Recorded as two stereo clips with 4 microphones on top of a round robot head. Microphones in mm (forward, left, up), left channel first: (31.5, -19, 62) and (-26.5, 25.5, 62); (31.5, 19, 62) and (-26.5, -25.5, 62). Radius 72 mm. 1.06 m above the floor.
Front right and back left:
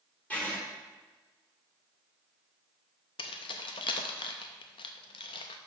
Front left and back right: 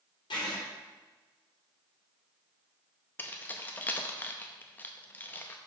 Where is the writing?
35° left, 3.5 m.